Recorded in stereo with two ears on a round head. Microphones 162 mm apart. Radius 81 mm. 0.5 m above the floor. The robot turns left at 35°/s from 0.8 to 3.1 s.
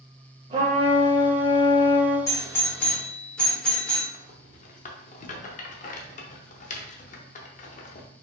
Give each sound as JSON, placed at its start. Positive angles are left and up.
{"t": 0.5, "sound": "a trumpet", "azimuth_deg": -140, "distance_m": 1.8}
{"t": 2.3, "sound": "a doorbell", "side_deg": 20, "distance_m": 1.3}
{"t": 4.1, "sound": "a rattle", "side_deg": 45, "distance_m": 0.6}